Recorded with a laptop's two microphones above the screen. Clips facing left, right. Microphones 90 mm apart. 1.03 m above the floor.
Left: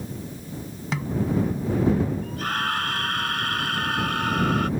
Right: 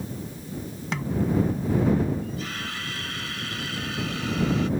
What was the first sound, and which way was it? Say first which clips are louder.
A snare drum: even; centre (ahead or behind).